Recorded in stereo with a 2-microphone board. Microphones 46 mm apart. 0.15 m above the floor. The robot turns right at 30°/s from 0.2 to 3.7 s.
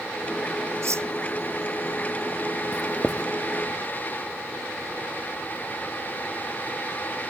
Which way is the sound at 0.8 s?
75° right (ahead or behind).